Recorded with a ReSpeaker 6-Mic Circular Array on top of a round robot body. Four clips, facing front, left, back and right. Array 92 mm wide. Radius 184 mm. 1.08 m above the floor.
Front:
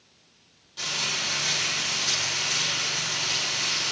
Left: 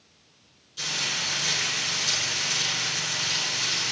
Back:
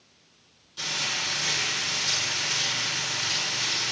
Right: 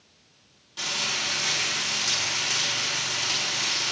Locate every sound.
0.8 s frying: 85° right, 6 m